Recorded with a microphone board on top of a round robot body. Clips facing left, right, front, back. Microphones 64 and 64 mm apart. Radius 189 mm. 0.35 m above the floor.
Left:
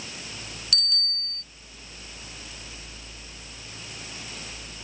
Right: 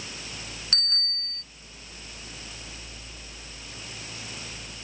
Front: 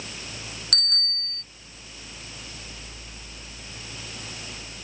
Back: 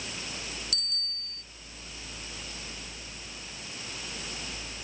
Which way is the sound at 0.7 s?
30° right.